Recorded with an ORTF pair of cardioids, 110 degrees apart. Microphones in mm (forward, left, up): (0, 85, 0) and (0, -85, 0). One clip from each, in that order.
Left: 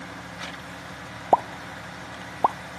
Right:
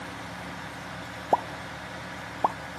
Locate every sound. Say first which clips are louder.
1.3 s a pop: left 5 dB; 20° left, 0.7 m